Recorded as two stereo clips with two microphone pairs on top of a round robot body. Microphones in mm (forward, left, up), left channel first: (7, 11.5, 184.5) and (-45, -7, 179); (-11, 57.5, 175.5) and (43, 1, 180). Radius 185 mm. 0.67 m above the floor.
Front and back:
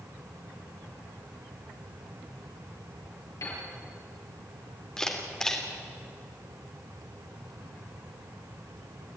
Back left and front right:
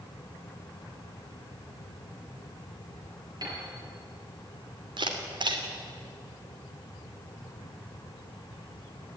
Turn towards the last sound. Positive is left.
turn(degrees=-60)